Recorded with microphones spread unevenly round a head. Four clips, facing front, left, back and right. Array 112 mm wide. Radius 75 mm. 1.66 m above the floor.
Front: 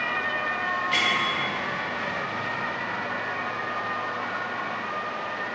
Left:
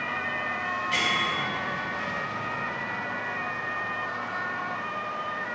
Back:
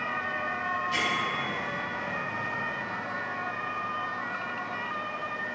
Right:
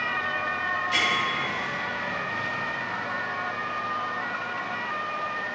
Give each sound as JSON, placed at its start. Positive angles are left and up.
{"t": 0.9, "sound": "a bell", "azimuth_deg": 15, "distance_m": 1.8}